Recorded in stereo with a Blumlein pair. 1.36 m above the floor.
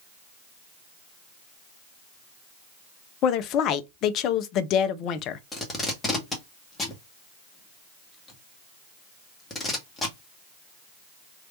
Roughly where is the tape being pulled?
Ahead.